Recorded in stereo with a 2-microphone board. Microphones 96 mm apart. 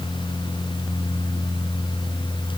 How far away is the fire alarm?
No fire alarm in this recording.